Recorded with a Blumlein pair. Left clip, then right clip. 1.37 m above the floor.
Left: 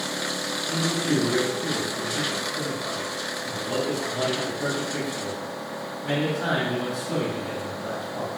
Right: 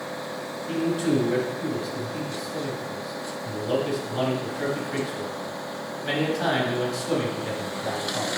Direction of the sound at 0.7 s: 30° right.